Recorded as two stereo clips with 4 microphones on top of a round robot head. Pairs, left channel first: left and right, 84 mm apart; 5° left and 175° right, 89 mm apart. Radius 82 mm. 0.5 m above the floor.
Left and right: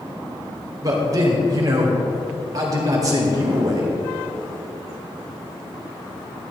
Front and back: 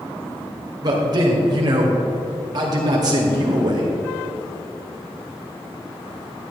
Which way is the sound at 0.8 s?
135° right.